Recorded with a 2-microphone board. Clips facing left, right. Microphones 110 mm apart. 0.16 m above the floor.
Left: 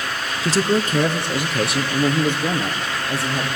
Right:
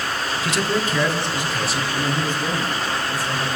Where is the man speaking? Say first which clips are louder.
Left 4 dB; 30° left (ahead or behind), 1.4 m; by 3.5 s 70° left (ahead or behind), 5.5 m.